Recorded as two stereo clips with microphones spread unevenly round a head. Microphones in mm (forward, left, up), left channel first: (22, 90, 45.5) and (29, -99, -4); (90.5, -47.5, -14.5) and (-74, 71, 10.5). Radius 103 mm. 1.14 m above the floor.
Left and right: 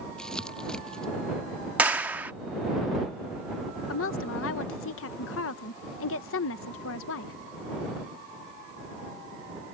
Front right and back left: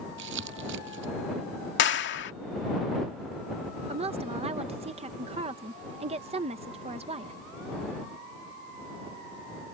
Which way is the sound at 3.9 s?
80° left.